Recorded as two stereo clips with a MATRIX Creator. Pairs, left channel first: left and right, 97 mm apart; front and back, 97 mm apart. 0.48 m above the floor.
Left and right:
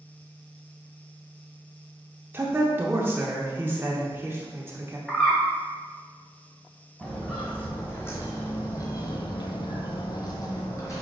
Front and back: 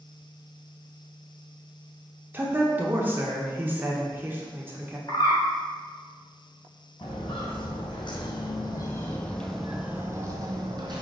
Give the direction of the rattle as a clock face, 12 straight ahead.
I don't hear a rattle.